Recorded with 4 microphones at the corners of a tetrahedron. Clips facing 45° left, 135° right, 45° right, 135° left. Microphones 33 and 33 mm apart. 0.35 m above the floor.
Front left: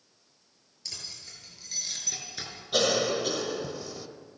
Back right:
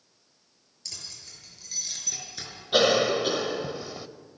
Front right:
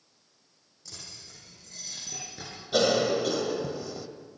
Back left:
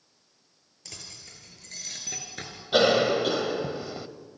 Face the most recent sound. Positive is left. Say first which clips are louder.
# back right 4 dB, back left 3 dB
turn(degrees=175)